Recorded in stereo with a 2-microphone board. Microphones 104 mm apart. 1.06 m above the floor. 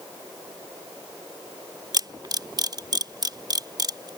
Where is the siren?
No siren in this recording.